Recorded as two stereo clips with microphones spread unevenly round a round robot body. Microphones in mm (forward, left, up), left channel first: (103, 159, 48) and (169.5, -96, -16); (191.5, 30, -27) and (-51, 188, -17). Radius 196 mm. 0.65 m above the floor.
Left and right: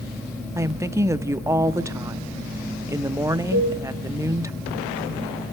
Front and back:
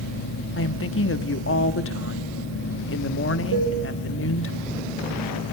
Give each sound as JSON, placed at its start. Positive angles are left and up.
{"t": 0.6, "sound": "a woman speaking", "azimuth_deg": -15, "distance_m": 1.0}
{"t": 3.5, "sound": "dishes clattering", "azimuth_deg": 135, "distance_m": 5.5}